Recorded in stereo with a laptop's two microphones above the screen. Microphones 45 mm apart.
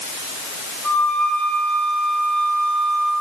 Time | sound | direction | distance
0.8 | a flute | 30° left (ahead or behind) | 7.5 m